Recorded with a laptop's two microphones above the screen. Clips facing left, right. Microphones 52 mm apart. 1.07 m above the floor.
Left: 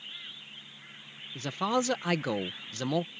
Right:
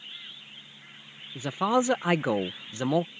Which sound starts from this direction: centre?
A man speaking, at 1.4 s.